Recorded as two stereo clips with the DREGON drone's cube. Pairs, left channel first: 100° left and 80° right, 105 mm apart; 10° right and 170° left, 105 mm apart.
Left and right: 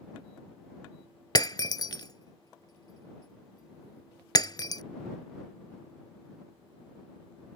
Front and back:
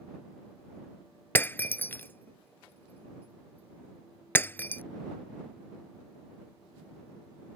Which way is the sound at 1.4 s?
55° left.